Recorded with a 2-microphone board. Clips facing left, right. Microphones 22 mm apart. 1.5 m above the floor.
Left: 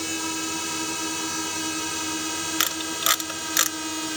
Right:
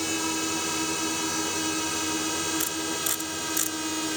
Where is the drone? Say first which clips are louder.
Right 1 dB; 5° right (ahead or behind); by 4.2 s centre (ahead or behind).